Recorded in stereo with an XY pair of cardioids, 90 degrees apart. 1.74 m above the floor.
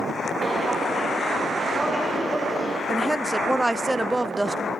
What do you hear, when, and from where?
0.4 s footsteps: 25° right, 7 m; by 2.8 s 10° right, 4 m
2.9 s a woman speaking: 15° right, 0.8 m